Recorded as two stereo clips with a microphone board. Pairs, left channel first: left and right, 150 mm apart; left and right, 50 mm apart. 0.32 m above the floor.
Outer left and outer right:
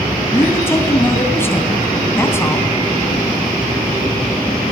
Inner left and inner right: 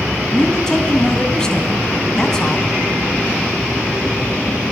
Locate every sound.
0.3 s a man speaking: 15° left (ahead or behind), 3 m